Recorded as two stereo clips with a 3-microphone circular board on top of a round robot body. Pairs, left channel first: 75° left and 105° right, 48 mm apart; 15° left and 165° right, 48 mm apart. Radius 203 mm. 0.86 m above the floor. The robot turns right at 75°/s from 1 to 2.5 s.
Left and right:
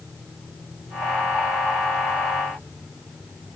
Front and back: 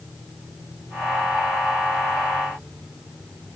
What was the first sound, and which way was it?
Only background noise.